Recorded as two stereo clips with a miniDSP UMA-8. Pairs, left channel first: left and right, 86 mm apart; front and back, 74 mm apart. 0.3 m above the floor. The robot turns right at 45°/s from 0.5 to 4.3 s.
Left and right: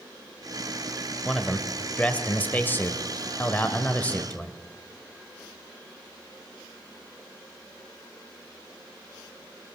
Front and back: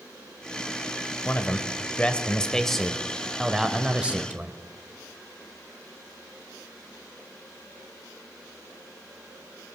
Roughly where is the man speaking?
Ahead.